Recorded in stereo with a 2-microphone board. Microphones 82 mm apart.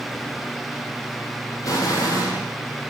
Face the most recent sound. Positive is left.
turn(degrees=45)  # may be behind; listen again after turning